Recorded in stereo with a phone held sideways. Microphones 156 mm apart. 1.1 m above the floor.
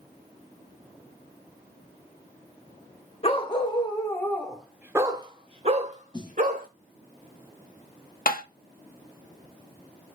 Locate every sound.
3.2 s a dog barking: 40° left (ahead or behind), 1.1 m; by 6.7 s 60° right (ahead or behind), 1.3 m
6.1 s a snare drum: 30° left (ahead or behind), 0.7 m
8.3 s tapping: 75° left (ahead or behind), 0.6 m